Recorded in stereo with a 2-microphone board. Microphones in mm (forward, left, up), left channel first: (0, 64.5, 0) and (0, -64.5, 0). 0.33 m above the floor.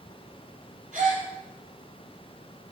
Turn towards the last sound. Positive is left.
turn(degrees=-10)  # may be behind; listen again after turning